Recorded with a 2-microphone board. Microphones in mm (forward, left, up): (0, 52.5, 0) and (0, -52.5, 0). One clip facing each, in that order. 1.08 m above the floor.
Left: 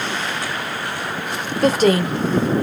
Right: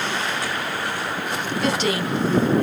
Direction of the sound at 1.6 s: 45° left (ahead or behind).